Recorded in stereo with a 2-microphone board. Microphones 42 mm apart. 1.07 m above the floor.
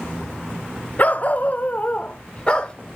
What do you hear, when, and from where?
1.0 s a dog barking: 40° left (ahead or behind), 0.7 m; by 2.7 s 25° left (ahead or behind), 1.2 m